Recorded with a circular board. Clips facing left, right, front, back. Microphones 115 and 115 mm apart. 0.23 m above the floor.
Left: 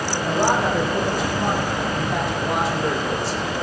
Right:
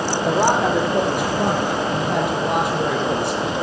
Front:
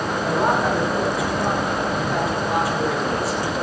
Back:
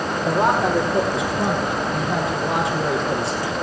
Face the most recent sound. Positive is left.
turn(degrees=-115)